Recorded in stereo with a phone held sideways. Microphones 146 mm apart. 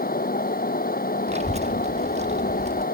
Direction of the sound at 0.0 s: 80° left.